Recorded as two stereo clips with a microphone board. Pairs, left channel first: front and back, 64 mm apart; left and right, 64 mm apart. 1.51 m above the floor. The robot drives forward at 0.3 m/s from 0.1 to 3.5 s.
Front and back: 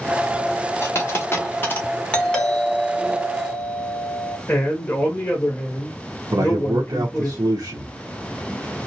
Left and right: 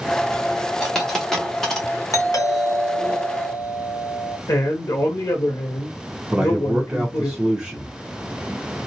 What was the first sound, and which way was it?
A dropped coin, 5° left.